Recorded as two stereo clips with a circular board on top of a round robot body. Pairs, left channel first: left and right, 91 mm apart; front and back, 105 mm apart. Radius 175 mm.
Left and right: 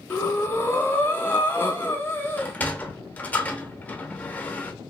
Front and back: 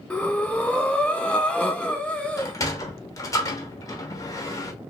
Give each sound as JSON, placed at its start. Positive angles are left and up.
{"t": 0.1, "sound": "breathing", "azimuth_deg": 65, "distance_m": 1.0}
{"t": 2.4, "sound": "a sliding door", "azimuth_deg": 30, "distance_m": 1.0}